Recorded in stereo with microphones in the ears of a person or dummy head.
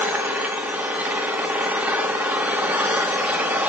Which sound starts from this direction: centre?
An engine running, at 0.0 s.